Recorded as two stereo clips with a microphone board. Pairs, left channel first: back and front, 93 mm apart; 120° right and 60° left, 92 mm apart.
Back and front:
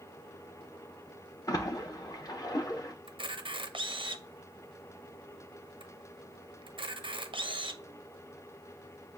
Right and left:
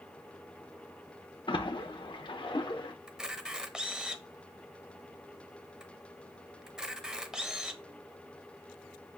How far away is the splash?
About 0.8 m.